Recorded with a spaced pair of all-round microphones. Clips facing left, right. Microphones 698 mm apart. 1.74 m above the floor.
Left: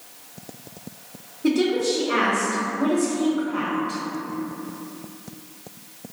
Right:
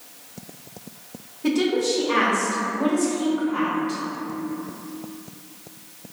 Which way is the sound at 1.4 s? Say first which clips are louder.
Left 1 dB; 35° right (ahead or behind).